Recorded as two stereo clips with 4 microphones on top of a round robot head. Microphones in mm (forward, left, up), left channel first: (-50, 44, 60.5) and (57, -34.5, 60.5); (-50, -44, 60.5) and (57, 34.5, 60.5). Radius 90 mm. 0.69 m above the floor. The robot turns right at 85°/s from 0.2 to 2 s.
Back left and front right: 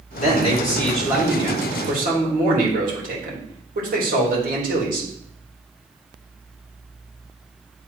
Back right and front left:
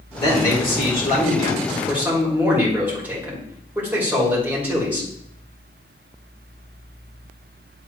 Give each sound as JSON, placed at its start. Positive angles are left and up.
{"t": 0.2, "sound": "a man speaking", "azimuth_deg": 165, "distance_m": 3.0}